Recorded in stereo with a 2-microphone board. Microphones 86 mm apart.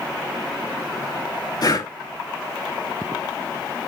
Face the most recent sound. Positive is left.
turn(degrees=50)  # may be behind; listen again after turning